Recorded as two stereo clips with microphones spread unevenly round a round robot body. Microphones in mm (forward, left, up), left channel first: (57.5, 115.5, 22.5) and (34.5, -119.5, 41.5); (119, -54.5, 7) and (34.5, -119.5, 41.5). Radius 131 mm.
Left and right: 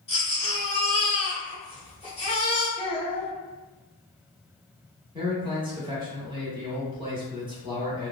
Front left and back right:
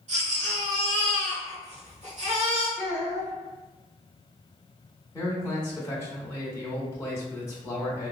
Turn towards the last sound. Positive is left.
turn(degrees=-25)